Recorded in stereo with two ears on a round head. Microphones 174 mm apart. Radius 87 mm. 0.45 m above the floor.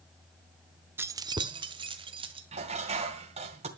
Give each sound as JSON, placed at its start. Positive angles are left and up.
{"t": 1.0, "sound": "keys jangling", "side_deg": -10, "distance_m": 0.5}
{"t": 2.5, "sound": "dishes clattering", "side_deg": -35, "distance_m": 1.9}